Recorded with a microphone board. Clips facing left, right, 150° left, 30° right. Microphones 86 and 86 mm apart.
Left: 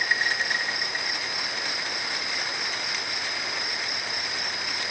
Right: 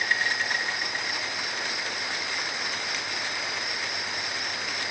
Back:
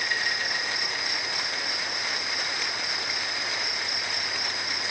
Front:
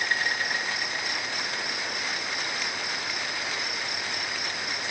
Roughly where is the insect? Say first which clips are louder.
Left 1 dB, front 2 dB; ahead.